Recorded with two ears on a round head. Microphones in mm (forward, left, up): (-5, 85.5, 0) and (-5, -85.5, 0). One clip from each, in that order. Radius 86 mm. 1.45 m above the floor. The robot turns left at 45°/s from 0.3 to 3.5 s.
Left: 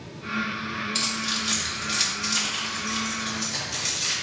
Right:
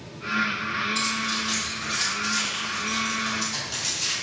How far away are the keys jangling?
About 2.5 m.